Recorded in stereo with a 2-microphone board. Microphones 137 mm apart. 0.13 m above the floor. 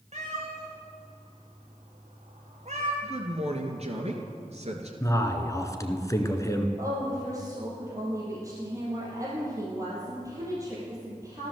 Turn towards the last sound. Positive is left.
turn(degrees=-25)  # may be behind; listen again after turning